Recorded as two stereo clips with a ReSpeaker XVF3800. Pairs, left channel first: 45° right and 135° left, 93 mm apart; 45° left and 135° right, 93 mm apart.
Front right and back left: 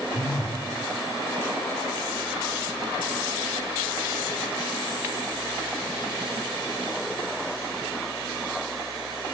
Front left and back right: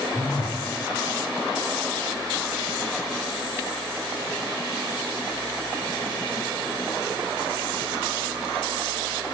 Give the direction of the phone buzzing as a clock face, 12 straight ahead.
2 o'clock.